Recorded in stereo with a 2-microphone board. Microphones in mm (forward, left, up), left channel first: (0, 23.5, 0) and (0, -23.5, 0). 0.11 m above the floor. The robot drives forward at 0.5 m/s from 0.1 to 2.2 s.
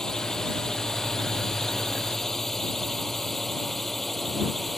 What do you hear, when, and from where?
0.0 s a drone: 15° left (ahead or behind); by 4.8 s 5° left (ahead or behind)